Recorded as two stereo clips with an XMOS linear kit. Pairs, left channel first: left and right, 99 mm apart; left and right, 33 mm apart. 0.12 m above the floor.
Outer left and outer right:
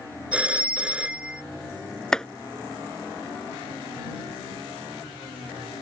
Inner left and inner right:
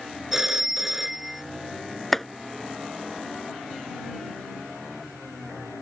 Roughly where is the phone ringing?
Centre.